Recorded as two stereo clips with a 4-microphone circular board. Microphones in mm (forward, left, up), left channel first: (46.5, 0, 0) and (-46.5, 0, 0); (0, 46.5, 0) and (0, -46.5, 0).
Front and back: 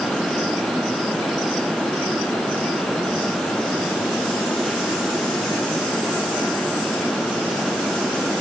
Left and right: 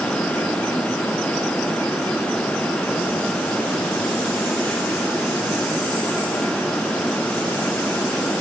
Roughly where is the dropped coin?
I don't hear a dropped coin.